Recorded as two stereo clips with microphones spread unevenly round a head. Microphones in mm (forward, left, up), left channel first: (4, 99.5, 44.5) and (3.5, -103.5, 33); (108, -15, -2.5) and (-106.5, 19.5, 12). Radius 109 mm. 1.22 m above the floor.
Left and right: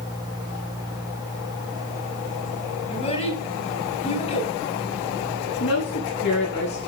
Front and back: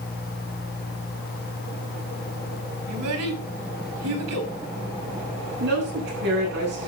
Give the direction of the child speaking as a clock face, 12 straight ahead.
7 o'clock.